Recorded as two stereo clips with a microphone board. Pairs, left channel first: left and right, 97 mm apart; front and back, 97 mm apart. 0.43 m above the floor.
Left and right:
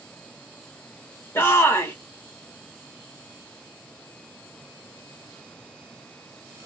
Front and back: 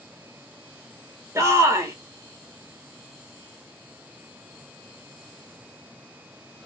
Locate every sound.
1.4 s a shout: 140° left, 0.9 m